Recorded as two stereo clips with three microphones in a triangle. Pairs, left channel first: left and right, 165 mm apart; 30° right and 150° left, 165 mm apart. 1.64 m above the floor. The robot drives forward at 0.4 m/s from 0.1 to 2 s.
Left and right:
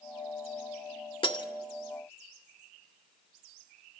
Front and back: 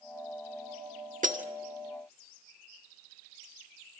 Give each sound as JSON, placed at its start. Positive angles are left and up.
{"t": 1.2, "sound": "breaking glass", "azimuth_deg": 140, "distance_m": 1.6}